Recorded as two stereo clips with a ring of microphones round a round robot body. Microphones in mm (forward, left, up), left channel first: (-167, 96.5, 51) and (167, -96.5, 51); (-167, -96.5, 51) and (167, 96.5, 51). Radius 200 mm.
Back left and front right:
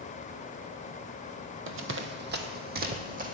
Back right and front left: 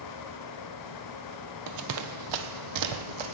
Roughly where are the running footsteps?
Ahead.